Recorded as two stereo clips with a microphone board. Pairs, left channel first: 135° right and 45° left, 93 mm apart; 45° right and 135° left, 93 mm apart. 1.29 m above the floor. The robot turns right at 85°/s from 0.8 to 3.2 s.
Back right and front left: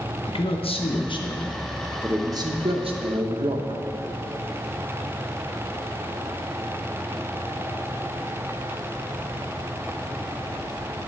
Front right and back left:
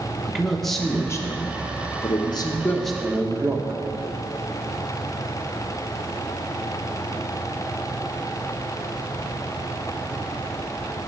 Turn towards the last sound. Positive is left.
turn(degrees=70)